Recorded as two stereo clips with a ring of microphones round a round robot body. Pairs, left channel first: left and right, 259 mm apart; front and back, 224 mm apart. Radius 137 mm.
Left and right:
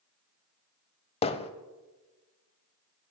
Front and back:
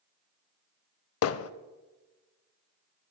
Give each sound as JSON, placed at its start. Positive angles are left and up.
{"t": 1.2, "sound": "hammering", "azimuth_deg": 20, "distance_m": 0.5}